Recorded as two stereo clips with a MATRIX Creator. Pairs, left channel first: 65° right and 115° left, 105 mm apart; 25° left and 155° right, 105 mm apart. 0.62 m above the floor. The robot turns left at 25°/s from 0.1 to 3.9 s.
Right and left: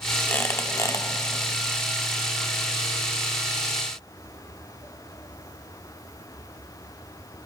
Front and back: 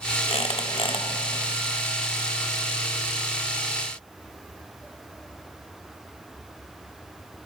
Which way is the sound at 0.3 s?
5° left.